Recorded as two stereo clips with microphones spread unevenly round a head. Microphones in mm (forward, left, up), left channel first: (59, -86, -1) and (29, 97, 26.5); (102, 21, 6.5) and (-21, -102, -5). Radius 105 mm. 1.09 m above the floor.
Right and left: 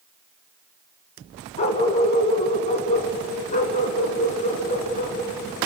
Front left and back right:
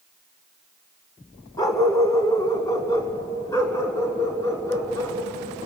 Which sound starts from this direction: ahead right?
A dog barking, at 1.6 s.